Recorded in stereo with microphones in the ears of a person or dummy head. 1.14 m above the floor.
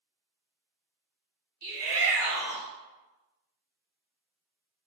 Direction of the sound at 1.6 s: 55° right (ahead or behind).